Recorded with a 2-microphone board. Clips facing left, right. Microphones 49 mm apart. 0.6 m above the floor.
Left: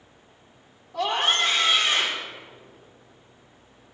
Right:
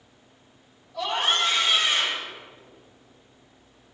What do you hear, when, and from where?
0.9 s a scream: 50° left (ahead or behind), 2.0 m